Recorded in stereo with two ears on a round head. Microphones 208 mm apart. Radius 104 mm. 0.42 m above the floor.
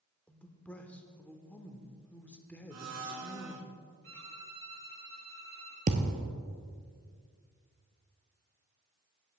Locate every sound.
0.3 s a man speaking: 5° left (ahead or behind), 0.8 m
2.7 s a blender: 75° right (ahead or behind), 1.3 m
4.0 s a violin: 60° right (ahead or behind), 2.5 m
5.9 s a thud: 35° right (ahead or behind), 1.0 m